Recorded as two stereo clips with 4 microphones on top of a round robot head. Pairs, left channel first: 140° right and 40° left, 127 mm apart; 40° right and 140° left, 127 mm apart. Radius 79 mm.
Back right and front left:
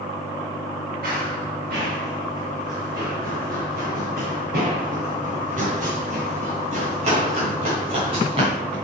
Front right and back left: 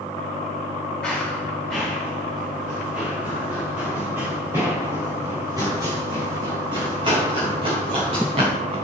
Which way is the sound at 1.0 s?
45° left.